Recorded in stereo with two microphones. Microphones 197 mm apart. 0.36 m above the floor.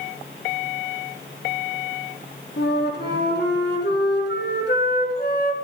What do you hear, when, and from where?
2.6 s a flute: 60° left (ahead or behind), 4 m